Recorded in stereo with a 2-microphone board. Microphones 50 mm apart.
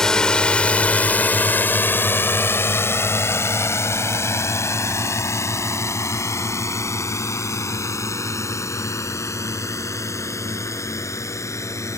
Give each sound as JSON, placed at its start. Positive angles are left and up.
{"t": 0.0, "sound": "a drone", "side_deg": 10}